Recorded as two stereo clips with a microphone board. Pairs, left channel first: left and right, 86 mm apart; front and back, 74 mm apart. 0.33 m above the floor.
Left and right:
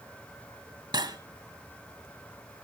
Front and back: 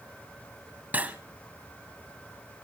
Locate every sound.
0.9 s cutlery clinking: 115° right, 1.4 m